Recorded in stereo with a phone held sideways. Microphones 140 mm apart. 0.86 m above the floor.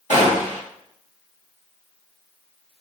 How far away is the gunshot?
About 1.4 m.